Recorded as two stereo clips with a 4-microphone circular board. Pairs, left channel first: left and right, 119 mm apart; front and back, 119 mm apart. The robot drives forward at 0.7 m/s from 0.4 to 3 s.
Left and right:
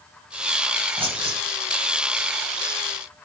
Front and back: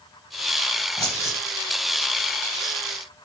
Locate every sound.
1.0 s keys jangling: 55° right, 1.6 m; by 1.4 s 65° right, 1.5 m